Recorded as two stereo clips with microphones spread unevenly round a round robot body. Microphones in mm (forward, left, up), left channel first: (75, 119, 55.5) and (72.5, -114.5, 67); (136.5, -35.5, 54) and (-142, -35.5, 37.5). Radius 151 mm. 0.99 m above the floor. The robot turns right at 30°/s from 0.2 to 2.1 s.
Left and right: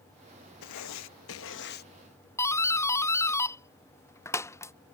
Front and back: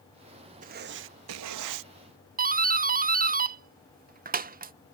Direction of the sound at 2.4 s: 155° left.